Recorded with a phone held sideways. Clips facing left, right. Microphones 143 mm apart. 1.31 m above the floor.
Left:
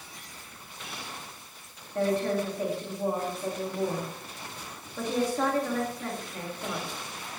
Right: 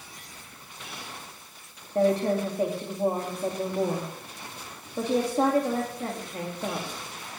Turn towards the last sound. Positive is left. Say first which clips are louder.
# right 4 dB
turn(degrees=-30)  # may be behind; listen again after turning